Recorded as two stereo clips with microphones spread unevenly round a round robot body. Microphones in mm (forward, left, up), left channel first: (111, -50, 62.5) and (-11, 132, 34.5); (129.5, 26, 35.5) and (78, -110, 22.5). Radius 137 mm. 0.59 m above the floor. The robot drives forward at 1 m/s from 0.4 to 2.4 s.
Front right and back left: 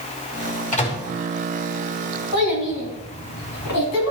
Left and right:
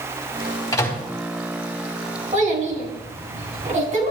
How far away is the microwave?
About 4.5 m.